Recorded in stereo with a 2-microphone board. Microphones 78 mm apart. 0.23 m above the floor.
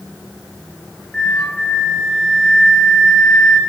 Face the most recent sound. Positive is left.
turn(degrees=5)  # may be behind; listen again after turning